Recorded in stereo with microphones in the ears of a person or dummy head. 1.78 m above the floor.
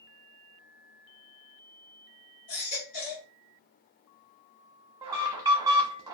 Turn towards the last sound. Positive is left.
turn(degrees=-20)  # may be behind; listen again after turning